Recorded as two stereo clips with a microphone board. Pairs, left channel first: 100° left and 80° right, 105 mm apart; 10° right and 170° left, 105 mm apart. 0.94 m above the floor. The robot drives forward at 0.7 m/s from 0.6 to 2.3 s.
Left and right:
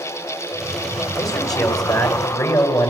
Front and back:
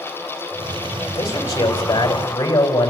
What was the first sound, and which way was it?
A man speaking, 45° left.